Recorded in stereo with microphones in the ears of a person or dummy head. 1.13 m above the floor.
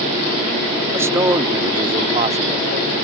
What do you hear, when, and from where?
0.9 s a man speaking: 15° right (ahead or behind); by 2.9 s 40° right (ahead or behind)